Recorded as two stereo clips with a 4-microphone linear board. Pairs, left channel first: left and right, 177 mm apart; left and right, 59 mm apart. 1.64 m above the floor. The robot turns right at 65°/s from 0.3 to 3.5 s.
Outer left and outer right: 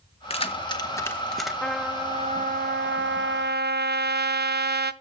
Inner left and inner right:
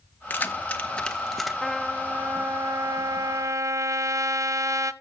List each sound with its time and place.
0.3 s keys jangling: 35° left (ahead or behind), 0.9 m; by 1.5 s centre (ahead or behind), 0.9 m
1.6 s a trumpet: 170° left, 0.5 m; by 4.9 s 65° right, 0.5 m